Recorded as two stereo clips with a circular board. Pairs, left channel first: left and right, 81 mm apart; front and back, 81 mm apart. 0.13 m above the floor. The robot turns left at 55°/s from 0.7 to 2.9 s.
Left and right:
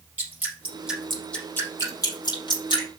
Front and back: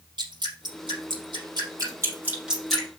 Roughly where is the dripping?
Behind.